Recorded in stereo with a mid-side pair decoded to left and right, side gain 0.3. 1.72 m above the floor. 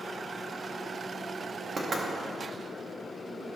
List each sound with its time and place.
1.8 s knocking: 55° right, 1.8 m